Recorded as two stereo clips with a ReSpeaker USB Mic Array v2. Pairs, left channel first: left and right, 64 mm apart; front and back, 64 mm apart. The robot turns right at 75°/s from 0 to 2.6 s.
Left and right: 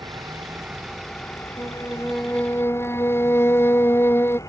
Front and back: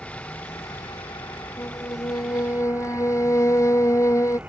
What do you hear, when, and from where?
0.0 s an engine running: 80° right; by 4.5 s 115° left
1.6 s a violin: 40° right; by 4.4 s 40° left